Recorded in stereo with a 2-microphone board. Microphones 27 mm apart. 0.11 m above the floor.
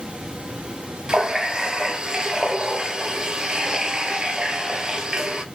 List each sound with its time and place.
1.1 s a running tap: 30° right (ahead or behind), 1.3 m